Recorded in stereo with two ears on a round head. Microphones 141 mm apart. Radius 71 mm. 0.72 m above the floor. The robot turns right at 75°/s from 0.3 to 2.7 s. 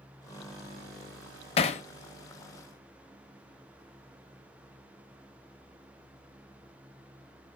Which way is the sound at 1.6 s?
40° left (ahead or behind).